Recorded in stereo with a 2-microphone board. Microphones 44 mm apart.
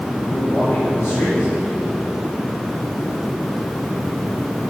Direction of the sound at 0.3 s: 80° left.